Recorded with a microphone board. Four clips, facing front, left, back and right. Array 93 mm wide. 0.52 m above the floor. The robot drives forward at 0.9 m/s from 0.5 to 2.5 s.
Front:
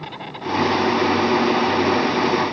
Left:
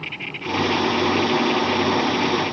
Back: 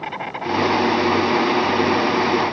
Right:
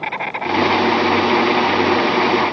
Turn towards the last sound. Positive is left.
turn(degrees=-115)